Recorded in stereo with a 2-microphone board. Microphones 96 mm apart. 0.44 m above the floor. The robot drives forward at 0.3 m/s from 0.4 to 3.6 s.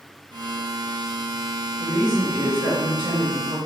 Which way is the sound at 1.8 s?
25° right (ahead or behind).